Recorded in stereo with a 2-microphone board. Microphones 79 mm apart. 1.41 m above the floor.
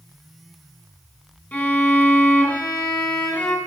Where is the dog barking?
No dog barking in this recording.